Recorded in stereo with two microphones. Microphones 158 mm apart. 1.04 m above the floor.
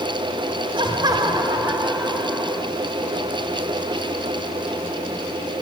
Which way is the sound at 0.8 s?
30° right (ahead or behind).